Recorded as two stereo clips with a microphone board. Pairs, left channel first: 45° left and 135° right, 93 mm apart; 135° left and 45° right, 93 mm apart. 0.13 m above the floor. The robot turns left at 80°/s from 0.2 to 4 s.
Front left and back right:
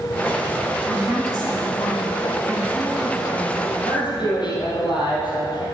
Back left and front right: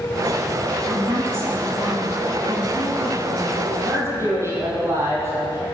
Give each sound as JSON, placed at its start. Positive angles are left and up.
{"t": 0.9, "sound": "a woman speaking", "azimuth_deg": -65, "distance_m": 2.5}
{"t": 3.7, "sound": "a man speaking", "azimuth_deg": 40, "distance_m": 3.5}